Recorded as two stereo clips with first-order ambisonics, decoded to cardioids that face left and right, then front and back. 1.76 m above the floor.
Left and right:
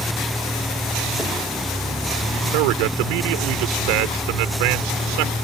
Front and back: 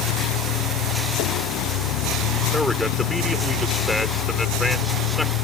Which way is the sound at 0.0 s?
5° left.